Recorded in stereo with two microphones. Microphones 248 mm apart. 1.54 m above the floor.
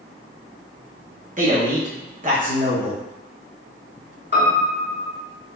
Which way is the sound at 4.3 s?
45° left (ahead or behind).